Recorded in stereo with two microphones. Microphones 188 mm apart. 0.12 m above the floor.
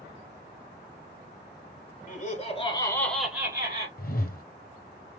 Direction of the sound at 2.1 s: 45° left (ahead or behind).